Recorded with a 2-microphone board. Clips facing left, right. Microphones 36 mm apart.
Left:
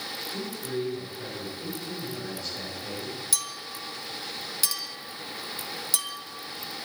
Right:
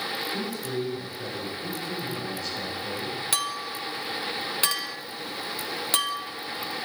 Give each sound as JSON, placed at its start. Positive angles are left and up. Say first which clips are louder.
{"t": 0.3, "sound": "a man speaking", "louder": "right 2 dB", "side_deg": 0, "distance_m": 7.0}
{"t": 3.3, "sound": "a clink", "louder": "right 6 dB", "side_deg": -45, "distance_m": 1.0}